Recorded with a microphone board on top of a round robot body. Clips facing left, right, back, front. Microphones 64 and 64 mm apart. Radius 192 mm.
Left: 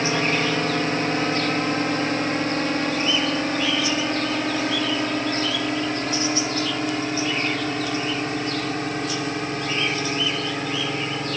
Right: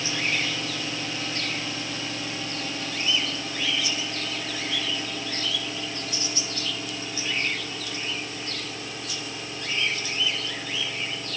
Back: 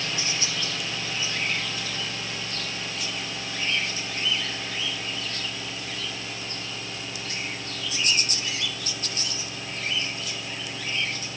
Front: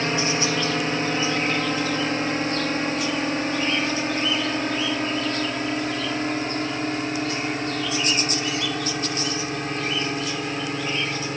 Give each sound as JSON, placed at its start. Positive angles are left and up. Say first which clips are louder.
{"t": 0.0, "sound": "a drone", "louder": "left 7 dB, front 8 dB", "azimuth_deg": 50}